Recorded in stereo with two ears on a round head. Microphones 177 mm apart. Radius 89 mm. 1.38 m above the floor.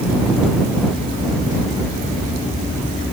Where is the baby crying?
No baby crying in this recording.